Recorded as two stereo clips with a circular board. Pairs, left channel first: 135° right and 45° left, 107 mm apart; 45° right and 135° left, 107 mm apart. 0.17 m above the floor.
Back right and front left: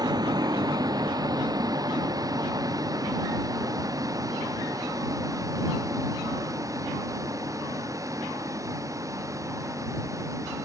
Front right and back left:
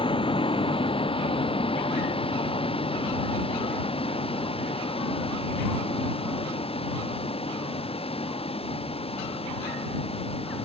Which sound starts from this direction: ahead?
A vehicle, at 0.0 s.